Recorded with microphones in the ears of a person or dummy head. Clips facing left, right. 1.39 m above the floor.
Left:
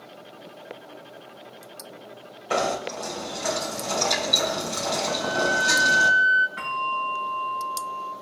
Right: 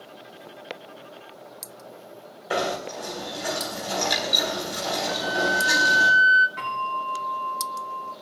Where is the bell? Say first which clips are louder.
Even; 5° left (ahead or behind), 9.5 m.